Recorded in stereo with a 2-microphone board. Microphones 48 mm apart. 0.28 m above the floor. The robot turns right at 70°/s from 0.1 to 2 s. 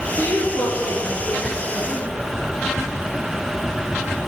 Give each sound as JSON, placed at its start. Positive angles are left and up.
{"t": 0.2, "sound": "a woman speaking", "azimuth_deg": 25, "distance_m": 3.5}